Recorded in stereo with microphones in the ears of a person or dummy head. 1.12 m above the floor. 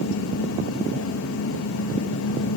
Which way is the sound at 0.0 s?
80° left.